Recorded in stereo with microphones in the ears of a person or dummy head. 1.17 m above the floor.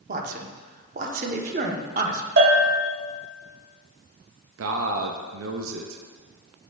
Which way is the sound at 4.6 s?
75° right (ahead or behind).